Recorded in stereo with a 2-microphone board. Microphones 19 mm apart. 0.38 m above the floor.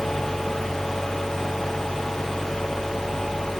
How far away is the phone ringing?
I don't hear a phone ringing.